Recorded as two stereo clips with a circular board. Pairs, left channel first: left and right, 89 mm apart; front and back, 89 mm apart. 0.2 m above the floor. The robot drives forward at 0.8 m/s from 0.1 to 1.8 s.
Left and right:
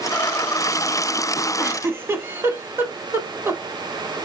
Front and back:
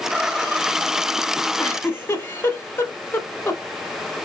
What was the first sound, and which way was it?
A giggle, 35° right.